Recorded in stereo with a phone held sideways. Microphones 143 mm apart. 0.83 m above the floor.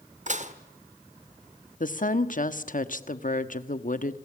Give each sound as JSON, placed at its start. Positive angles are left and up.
{"t": 0.3, "sound": "dishes clattering", "side_deg": -50, "distance_m": 1.5}
{"t": 1.8, "sound": "a woman speaking", "side_deg": 60, "distance_m": 1.2}